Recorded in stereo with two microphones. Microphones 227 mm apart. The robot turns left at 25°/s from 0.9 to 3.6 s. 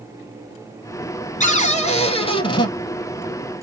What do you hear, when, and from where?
1.4 s a cupboard door: 65° left, 0.6 m; by 2.7 s 35° left, 0.6 m